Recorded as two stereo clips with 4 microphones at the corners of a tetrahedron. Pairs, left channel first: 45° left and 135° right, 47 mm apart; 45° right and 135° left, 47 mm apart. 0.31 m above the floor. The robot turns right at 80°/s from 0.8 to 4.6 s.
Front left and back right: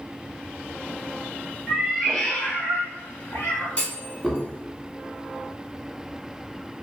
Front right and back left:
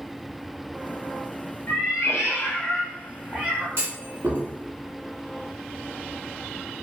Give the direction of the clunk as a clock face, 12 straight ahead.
9 o'clock.